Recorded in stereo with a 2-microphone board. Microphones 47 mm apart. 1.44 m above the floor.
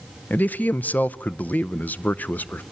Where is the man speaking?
35° left (ahead or behind), 0.5 m.